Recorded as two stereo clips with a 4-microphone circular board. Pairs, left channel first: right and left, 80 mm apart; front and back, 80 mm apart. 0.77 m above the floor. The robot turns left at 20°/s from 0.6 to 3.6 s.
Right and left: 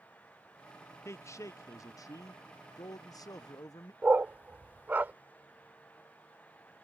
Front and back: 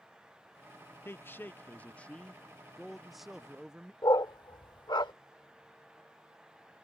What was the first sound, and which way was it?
A man speaking, 50° right.